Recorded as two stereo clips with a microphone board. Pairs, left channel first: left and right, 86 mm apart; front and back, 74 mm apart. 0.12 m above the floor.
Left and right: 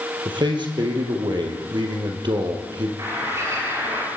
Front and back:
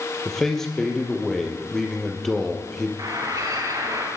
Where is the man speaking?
85° right, 4 m.